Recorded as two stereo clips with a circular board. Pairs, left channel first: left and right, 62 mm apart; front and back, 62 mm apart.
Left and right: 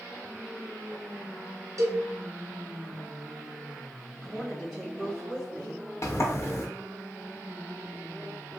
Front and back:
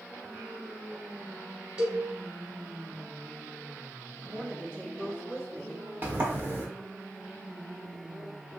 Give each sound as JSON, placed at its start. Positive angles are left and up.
{"t": 1.8, "sound": "a cowbell", "azimuth_deg": -110, "distance_m": 1.1}
{"t": 4.2, "sound": "a woman speaking", "azimuth_deg": 175, "distance_m": 1.4}
{"t": 6.0, "sound": "a sliding door", "azimuth_deg": 125, "distance_m": 0.8}